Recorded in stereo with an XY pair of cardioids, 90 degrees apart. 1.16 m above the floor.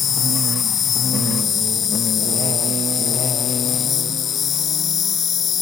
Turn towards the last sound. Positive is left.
turn(degrees=65)